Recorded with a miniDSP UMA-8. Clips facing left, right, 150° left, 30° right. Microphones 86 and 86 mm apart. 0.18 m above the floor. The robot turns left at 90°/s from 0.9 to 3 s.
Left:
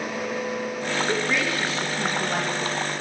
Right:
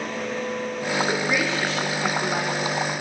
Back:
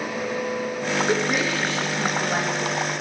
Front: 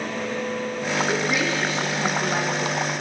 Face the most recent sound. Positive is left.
turn(degrees=40)